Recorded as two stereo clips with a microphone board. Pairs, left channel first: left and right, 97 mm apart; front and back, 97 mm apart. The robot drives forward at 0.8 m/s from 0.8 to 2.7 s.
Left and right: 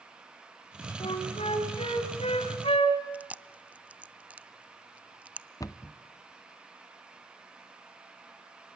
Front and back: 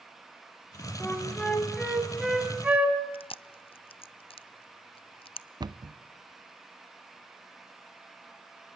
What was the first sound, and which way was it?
A flute, 70° left.